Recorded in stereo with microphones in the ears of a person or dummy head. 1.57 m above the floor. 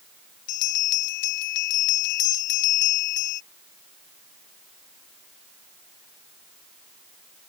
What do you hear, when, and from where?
0.5 s a bell: 65° left (ahead or behind)